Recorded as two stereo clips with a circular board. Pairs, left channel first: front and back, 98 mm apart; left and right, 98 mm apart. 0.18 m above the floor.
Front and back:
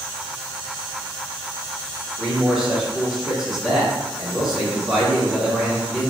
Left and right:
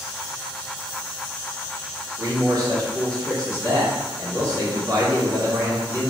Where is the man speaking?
100° right, 1.5 m.